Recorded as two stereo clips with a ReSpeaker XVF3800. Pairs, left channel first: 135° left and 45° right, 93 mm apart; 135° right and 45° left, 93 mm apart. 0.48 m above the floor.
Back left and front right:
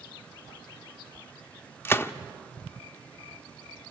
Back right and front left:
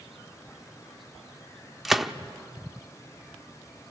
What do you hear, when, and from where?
1.9 s a gunshot: 130° left, 0.6 m